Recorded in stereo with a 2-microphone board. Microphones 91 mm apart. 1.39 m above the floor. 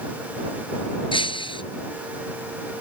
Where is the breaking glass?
65° left (ahead or behind).